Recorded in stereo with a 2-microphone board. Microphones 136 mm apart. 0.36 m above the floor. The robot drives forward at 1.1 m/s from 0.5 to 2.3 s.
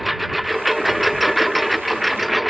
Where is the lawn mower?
Centre (ahead or behind).